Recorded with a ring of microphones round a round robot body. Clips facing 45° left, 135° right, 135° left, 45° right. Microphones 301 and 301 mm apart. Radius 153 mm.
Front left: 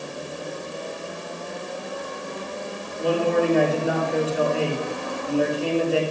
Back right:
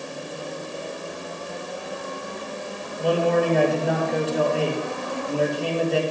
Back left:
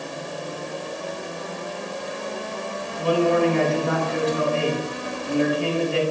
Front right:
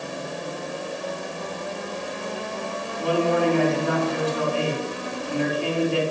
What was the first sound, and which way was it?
A man speaking, 135° left.